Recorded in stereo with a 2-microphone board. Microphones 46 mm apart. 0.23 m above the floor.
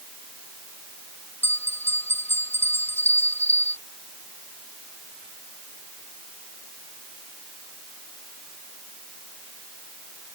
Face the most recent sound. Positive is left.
turn(degrees=50)  # may be behind; listen again after turning